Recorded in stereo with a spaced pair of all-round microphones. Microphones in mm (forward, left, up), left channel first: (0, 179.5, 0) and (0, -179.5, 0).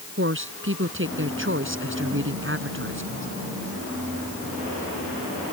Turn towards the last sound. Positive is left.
turn(degrees=-35)  # may be behind; listen again after turning